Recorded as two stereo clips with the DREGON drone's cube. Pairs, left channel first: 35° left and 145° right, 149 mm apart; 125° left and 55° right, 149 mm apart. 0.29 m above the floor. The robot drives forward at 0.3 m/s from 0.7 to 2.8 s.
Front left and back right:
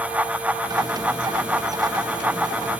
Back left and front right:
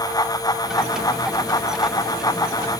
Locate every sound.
Only background noise.